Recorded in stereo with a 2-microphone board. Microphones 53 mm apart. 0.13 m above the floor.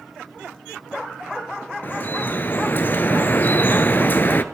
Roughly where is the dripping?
Left.